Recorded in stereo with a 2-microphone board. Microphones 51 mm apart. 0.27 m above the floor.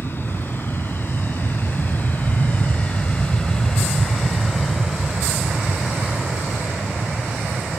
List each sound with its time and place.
0.0 s an aircraft: 45° left (ahead or behind); by 7.8 s 25° right (ahead or behind)